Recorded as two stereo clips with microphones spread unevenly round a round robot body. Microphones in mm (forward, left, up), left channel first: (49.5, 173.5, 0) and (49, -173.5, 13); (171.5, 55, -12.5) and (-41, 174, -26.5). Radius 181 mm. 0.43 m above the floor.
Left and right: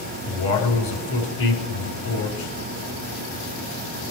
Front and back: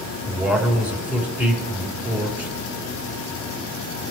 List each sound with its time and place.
0.3 s a man speaking: 65° left, 5 m